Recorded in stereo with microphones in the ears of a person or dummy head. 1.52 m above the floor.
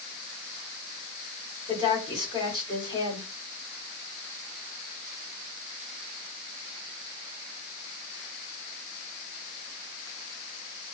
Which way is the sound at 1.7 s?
25° left (ahead or behind).